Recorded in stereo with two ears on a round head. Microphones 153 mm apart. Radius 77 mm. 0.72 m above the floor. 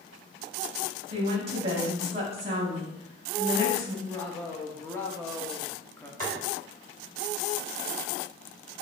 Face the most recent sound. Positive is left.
turn(degrees=20)  # may be behind; listen again after turning